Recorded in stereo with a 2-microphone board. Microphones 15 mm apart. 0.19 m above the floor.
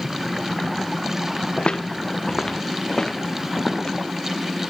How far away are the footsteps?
About 1.3 m.